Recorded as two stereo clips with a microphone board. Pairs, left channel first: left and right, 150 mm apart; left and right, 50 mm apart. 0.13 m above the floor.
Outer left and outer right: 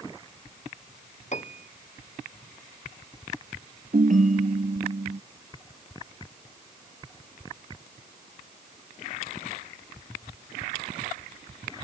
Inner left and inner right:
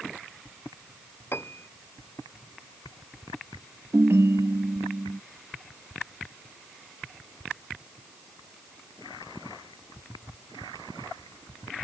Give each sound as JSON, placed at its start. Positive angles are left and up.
{"t": 1.3, "sound": "a piano", "side_deg": 50}
{"t": 3.9, "sound": "a ringtone", "side_deg": -60}